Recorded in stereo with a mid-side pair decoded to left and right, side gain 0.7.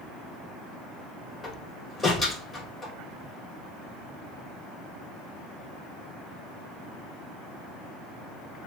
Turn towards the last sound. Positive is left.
turn(degrees=20)